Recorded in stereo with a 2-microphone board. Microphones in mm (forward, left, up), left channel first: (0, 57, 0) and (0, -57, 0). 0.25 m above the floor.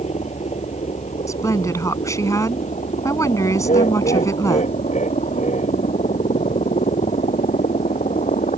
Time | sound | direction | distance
0.0 | a helicopter | 65° left (ahead or behind) | ?
1.3 | a woman speaking | 25° left (ahead or behind) | ?
3.6 | laughter | 80° left | ?